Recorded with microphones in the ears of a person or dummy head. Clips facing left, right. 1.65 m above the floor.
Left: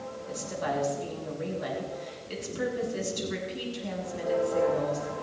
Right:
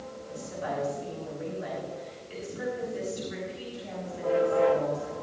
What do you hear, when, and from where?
0.3 s a woman speaking: 60° left (ahead or behind), 7 m